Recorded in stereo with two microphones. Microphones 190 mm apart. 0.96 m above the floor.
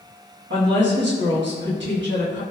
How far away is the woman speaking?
About 1.2 m.